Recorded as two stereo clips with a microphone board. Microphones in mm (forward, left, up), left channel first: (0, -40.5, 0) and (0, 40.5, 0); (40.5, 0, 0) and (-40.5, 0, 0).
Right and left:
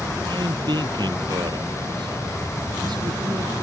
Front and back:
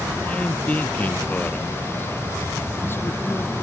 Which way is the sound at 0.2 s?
75° left.